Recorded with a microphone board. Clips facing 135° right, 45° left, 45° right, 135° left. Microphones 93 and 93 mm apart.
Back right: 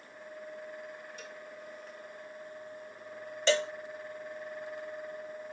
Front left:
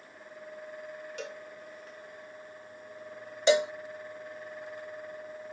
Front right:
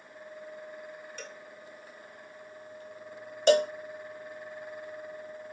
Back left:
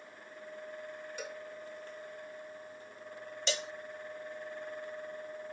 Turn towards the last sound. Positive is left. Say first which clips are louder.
# front left 4 dB, front right 16 dB
turn(degrees=-25)